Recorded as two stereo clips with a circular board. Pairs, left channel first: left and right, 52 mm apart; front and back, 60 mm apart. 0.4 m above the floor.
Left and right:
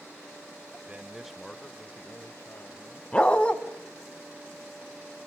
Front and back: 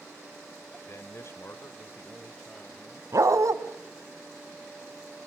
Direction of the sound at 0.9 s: 30° right.